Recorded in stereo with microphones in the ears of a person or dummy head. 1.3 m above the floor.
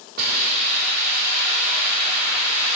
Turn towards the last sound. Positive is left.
turn(degrees=-55)  # may be behind; listen again after turning